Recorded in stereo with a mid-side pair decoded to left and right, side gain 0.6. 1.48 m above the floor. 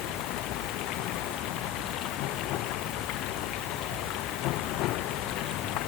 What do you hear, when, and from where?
0.0 s running water: 65° left